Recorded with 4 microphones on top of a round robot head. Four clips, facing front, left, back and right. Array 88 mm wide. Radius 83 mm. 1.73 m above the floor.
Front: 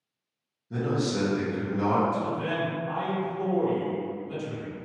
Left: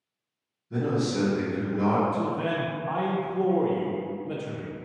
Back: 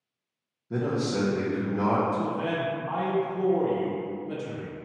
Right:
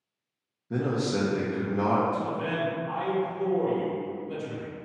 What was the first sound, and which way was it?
A man speaking, 110° right.